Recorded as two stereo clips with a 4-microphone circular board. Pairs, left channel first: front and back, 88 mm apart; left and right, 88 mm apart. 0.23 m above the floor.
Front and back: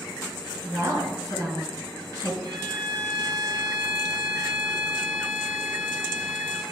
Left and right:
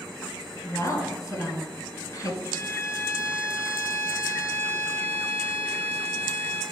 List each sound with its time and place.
0.6 s a woman speaking: 140° left, 3 m
2.4 s a violin: 150° left, 2.5 m